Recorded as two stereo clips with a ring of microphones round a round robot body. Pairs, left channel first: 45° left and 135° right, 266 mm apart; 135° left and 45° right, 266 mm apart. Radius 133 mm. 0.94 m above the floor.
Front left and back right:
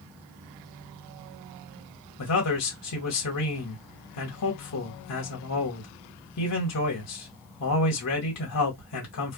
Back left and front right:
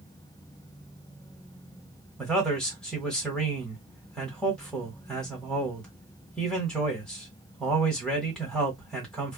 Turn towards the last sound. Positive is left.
turn(degrees=50)